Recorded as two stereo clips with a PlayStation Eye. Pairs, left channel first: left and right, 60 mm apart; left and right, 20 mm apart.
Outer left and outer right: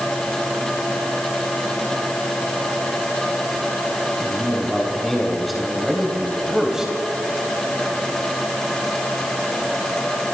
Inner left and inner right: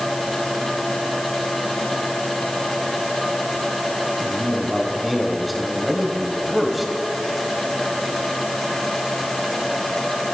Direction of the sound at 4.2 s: 5° left (ahead or behind).